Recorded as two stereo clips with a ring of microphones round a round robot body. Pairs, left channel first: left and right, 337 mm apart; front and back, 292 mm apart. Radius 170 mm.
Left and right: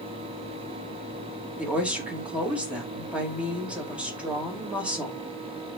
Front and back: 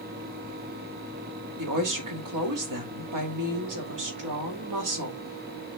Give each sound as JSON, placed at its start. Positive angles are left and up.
{"t": 1.6, "sound": "a woman speaking", "azimuth_deg": -175, "distance_m": 2.0}